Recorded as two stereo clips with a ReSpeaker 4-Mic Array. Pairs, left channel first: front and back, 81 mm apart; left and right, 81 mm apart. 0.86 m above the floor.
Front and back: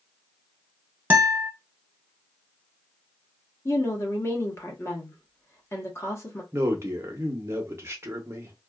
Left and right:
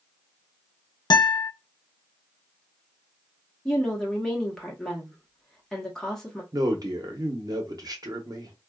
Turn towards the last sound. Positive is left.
turn(degrees=-125)